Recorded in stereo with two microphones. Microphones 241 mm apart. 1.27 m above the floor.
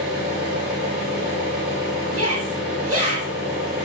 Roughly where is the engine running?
Right.